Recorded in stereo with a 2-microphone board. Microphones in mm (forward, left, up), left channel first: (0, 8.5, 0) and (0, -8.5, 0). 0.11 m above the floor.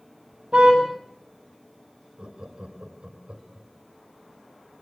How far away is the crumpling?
No crumpling in this recording.